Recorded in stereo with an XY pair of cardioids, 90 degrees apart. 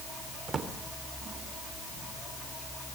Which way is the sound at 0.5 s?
50° right.